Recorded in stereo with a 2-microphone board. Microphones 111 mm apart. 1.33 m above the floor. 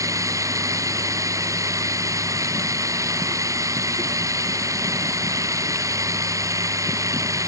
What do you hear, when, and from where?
0.0 s running water: 30° right (ahead or behind)